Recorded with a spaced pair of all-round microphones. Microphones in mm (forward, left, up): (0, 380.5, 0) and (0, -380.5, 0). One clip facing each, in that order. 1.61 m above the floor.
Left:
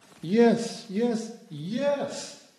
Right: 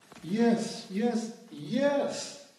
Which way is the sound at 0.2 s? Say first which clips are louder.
Left 5 dB; 80° left.